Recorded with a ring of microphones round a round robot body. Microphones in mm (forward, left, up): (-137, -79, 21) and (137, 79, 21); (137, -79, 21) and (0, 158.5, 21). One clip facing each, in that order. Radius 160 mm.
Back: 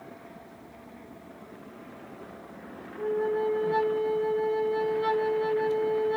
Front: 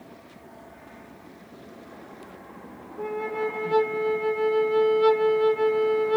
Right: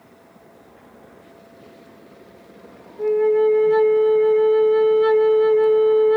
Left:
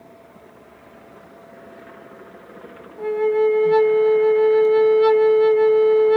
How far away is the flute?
About 0.6 m.